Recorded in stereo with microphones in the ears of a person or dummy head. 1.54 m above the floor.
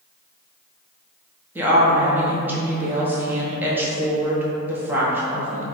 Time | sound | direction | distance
1.6 | a woman speaking | 20° right (ahead or behind) | 0.9 m